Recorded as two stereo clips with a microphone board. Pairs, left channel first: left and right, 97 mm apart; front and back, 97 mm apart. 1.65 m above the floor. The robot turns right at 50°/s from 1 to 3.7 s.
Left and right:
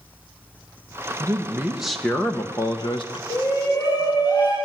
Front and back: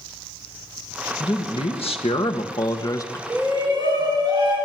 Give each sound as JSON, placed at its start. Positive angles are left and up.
{"t": 1.2, "sound": "a man speaking", "azimuth_deg": -35, "distance_m": 1.5}
{"t": 3.3, "sound": "a shout", "azimuth_deg": 115, "distance_m": 7.0}